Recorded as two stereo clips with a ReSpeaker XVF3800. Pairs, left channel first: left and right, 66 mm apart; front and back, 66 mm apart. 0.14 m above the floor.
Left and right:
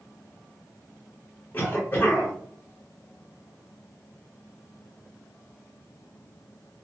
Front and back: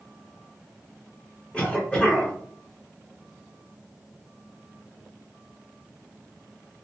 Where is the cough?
55° left, 1.2 m.